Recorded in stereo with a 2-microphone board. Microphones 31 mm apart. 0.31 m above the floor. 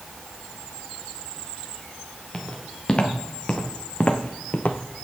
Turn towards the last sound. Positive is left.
turn(degrees=60)  # may be behind; listen again after turning